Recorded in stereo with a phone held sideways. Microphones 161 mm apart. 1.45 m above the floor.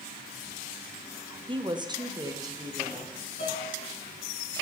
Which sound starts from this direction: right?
A woman speaking, at 1.5 s.